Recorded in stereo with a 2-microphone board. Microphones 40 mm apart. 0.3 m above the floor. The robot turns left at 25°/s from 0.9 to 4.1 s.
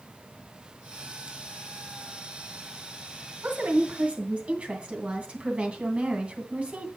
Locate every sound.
3.4 s a woman speaking: 40° right (ahead or behind), 2.5 m; by 6.9 s 30° right (ahead or behind), 2.5 m